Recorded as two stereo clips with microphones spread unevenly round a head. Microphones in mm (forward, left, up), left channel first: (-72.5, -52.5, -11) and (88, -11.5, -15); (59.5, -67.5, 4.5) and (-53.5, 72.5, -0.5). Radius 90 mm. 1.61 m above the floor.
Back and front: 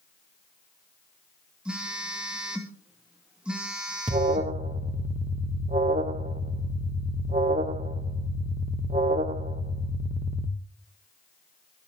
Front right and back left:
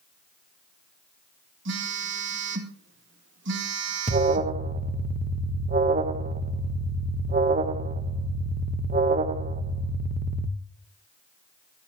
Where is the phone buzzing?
100° left, 2 m.